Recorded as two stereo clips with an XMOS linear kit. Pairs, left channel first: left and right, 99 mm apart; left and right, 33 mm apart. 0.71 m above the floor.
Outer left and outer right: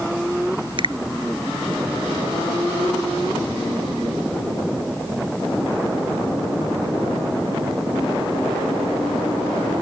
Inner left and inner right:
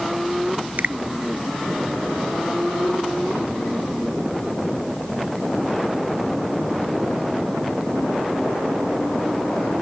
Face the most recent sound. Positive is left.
turn(degrees=-55)  # may be behind; listen again after turning